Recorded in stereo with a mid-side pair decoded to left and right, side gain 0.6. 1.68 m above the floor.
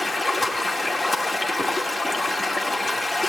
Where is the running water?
20° left, 3 m.